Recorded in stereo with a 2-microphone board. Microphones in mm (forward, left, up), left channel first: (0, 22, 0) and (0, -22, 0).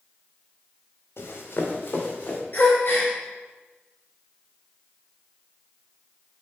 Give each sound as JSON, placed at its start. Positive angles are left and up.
{"t": 1.2, "sound": "running footsteps", "side_deg": 60, "distance_m": 1.9}
{"t": 2.5, "sound": "a gasp", "side_deg": 45, "distance_m": 3.0}